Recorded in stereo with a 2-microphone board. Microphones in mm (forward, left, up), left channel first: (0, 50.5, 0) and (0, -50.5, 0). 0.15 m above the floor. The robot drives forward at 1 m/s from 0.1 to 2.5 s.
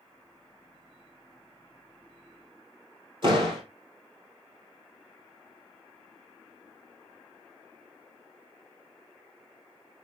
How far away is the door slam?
About 3 m.